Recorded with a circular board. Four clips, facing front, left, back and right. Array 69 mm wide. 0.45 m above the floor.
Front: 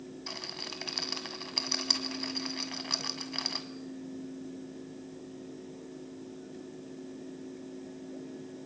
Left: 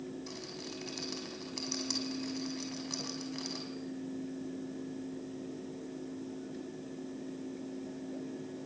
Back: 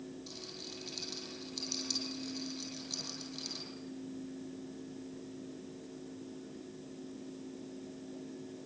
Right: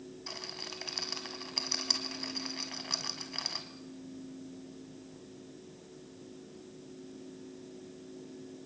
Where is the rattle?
20° right, 2 m.